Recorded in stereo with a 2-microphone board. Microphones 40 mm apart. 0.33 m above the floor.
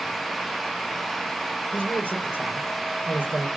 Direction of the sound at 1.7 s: 65° left (ahead or behind).